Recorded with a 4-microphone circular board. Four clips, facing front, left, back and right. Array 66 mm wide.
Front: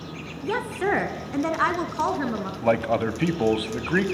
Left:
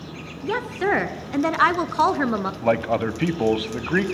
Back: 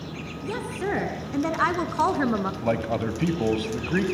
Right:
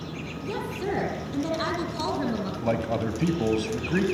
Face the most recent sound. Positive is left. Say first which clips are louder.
# left 6 dB, front 9 dB
turn(degrees=60)